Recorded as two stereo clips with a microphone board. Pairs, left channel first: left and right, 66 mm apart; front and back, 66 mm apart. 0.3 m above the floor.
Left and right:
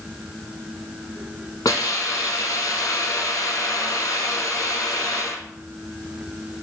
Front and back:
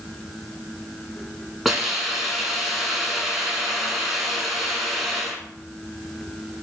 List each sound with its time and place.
1.6 s a hiss: 90° left, 0.7 m